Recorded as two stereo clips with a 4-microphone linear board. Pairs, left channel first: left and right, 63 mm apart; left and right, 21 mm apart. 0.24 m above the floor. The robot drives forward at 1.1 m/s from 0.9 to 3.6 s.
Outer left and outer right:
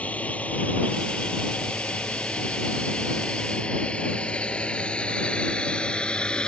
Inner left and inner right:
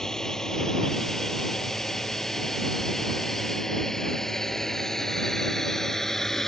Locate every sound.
0.0 s a drone: 25° left (ahead or behind); by 6.5 s 15° left (ahead or behind)